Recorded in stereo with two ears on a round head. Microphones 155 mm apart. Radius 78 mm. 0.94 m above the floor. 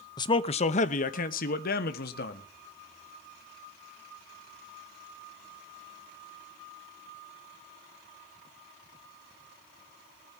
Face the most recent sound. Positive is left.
turn(degrees=55)  # may be behind; listen again after turning